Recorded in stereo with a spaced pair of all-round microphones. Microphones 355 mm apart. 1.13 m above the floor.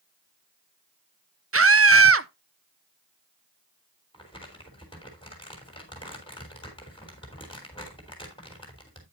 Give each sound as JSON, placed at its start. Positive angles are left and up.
{"t": 1.5, "sound": "a scream", "side_deg": -40, "distance_m": 0.6}
{"t": 4.1, "sound": "crumpling", "side_deg": 15, "distance_m": 3.5}